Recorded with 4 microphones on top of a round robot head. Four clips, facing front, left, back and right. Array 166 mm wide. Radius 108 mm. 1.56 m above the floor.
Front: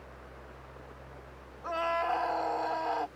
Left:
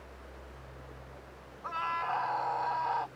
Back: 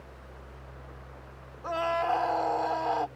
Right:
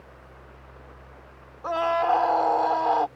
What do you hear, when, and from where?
1.6 s a scream: 100° right